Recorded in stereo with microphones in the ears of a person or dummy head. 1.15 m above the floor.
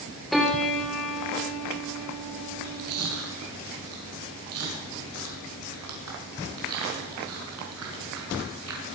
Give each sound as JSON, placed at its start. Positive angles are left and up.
{"t": 0.3, "sound": "a piano", "side_deg": -5, "distance_m": 2.5}
{"t": 2.5, "sound": "chewing", "side_deg": -80, "distance_m": 5.0}